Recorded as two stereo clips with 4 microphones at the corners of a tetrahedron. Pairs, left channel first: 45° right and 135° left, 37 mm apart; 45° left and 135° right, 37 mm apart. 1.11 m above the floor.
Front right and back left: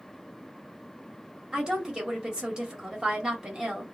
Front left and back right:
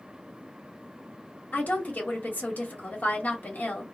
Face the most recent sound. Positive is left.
turn(degrees=70)